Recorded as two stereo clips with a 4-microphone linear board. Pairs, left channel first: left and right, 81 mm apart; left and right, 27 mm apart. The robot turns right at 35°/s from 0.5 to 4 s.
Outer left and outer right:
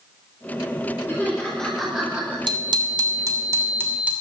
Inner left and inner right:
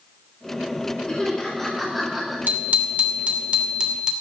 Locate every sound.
1.1 s laughter: 150° left, 5 m; by 2.4 s 165° right, 5 m
2.5 s a bicycle bell: 75° right, 2.5 m; by 4.1 s 20° right, 2.5 m